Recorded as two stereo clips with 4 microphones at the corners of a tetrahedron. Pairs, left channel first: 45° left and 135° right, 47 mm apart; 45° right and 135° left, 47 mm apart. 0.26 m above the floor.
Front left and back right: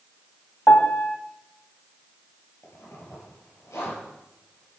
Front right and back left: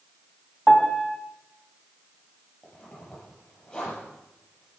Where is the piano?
35° left, 1.0 m.